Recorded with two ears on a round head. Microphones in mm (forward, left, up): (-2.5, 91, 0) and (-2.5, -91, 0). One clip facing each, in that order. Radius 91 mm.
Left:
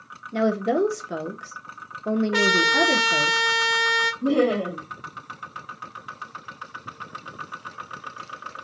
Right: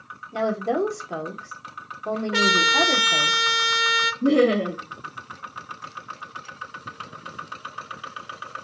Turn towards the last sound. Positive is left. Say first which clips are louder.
# right 3 dB
turn(degrees=-25)  # may be behind; listen again after turning